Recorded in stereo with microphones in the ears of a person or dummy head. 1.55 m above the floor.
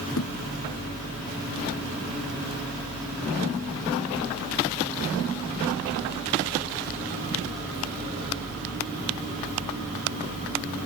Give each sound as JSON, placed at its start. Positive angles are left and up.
{"t": 0.2, "sound": "a thud", "side_deg": 65}